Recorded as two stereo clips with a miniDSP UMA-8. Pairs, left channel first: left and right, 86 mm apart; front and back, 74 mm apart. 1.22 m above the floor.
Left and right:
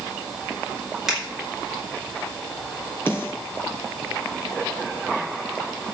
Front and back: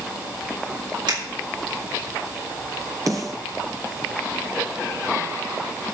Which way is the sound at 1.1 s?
175° right.